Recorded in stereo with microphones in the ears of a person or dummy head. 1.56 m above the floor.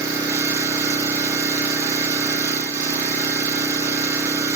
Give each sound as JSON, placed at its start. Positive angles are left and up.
{"t": 0.0, "sound": "an engine running", "side_deg": -20, "distance_m": 0.8}